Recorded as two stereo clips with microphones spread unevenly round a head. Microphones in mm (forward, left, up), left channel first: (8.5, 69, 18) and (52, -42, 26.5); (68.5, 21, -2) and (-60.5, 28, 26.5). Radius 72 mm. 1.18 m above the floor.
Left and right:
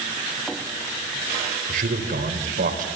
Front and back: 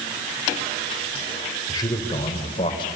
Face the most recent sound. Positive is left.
turn(degrees=-60)